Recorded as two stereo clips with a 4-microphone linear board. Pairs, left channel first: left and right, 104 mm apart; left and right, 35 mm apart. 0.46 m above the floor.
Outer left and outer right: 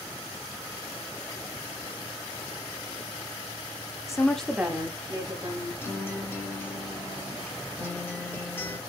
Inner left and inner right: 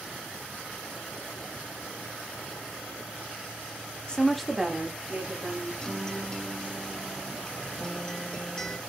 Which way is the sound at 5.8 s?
20° left (ahead or behind).